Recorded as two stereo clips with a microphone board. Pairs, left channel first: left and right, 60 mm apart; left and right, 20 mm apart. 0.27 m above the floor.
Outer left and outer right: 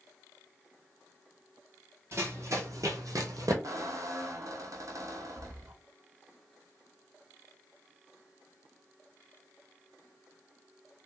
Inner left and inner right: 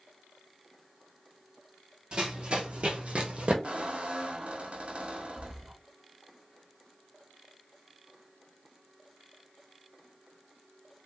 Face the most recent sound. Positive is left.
turn(degrees=-70)  # may be behind; listen again after turning